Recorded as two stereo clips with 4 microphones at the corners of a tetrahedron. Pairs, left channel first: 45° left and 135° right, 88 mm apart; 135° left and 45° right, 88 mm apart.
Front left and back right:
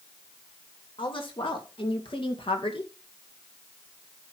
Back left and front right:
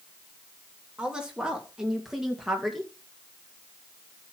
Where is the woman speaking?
35° left, 3 m; by 2.9 s 45° left, 2 m.